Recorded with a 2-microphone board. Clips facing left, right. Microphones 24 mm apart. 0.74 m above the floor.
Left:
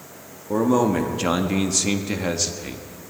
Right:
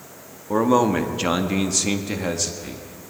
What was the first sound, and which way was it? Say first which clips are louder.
A man speaking: right 1 dB; 40° right (ahead or behind).